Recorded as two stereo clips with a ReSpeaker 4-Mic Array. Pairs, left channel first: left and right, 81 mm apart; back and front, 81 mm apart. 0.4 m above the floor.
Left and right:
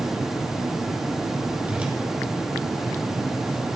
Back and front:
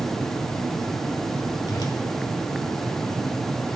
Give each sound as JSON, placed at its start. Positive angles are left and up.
{"t": 1.7, "sound": "a whoosh", "azimuth_deg": -160, "distance_m": 1.3}